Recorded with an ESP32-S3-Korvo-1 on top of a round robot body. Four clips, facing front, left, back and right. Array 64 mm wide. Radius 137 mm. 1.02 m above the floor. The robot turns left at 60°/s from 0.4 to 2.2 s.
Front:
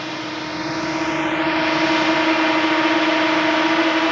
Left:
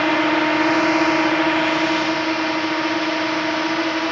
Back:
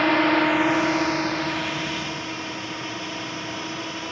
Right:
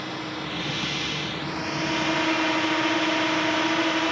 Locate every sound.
0.0 s a drone: 120° left; by 4.1 s 15° left